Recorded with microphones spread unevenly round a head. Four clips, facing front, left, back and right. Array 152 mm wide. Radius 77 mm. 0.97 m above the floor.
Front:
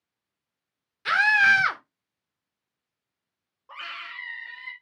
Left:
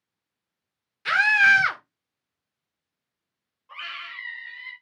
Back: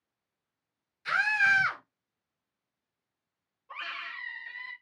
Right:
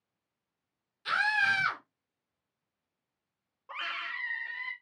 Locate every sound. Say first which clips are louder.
1.1 s a scream: left 9 dB, front 6 dB; 25° left, 2.5 m
3.7 s a scream: right 1 dB, front 1 dB; 60° right, 3 m